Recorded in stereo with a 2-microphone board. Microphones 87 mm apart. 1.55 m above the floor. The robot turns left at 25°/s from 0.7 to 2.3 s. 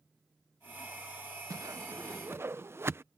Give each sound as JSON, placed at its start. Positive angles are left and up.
{"t": 1.5, "sound": "a whoosh", "side_deg": -45}